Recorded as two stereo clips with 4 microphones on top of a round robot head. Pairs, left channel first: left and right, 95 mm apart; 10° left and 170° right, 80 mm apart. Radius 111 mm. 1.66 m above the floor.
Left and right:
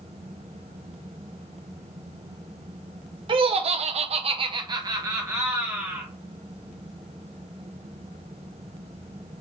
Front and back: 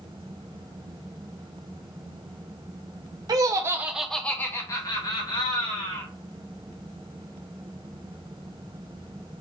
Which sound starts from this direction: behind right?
Laughter, at 3.3 s.